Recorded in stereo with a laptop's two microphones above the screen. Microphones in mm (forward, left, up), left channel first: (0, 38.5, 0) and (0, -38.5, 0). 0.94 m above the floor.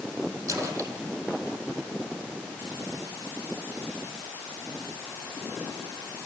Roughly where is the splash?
Right.